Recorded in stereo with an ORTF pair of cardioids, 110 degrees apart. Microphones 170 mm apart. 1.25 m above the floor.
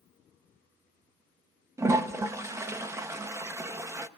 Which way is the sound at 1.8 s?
15° right.